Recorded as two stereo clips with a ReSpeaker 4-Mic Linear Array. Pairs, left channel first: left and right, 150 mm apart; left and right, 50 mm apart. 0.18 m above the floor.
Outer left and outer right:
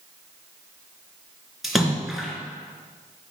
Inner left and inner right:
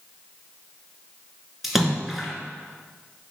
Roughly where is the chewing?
I don't hear chewing.